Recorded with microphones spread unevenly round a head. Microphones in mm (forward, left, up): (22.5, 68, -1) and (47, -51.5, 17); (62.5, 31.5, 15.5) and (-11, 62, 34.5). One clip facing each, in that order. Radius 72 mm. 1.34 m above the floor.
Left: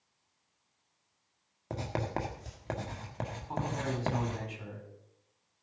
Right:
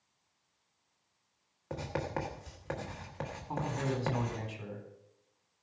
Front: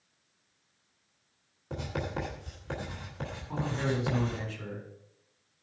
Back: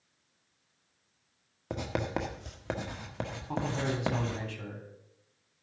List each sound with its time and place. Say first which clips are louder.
1.7 s writing: left 1 dB, back 2 dB; 165° left, 1.5 m
3.5 s a man speaking: even, front 1 dB; 165° right, 4.5 m